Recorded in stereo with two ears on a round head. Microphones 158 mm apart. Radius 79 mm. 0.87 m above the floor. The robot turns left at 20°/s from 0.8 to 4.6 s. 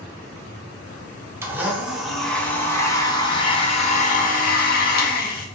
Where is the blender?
165° right, 0.5 m; by 5.5 s 130° left, 0.5 m.